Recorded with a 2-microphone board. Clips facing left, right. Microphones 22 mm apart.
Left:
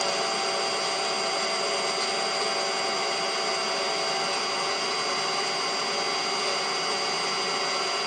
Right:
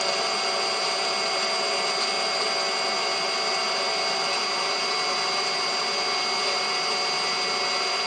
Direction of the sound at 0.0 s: 20° right (ahead or behind).